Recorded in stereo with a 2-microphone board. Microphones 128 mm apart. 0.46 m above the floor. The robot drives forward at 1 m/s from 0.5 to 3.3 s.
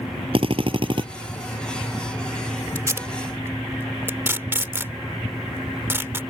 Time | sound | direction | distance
0.3 | a drill | 45° right (ahead or behind) | ?
2.8 | tape being pulled | 25° right (ahead or behind) | ?